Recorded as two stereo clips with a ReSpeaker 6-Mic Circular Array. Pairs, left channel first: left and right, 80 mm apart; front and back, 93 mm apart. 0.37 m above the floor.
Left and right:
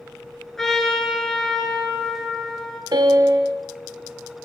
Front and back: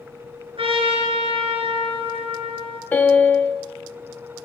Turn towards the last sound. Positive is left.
turn(degrees=-70)